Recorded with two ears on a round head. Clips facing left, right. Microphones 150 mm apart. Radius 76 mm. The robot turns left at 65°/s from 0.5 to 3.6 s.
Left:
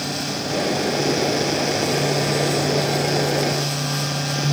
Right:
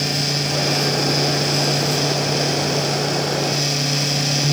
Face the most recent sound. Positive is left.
No sound to turn to.